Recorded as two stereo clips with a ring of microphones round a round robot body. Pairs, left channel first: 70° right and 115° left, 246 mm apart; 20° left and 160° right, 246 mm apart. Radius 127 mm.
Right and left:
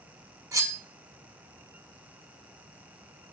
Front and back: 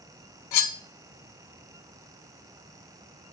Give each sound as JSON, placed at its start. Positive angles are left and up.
{"t": 0.5, "sound": "cutlery clinking", "azimuth_deg": 35, "distance_m": 1.3}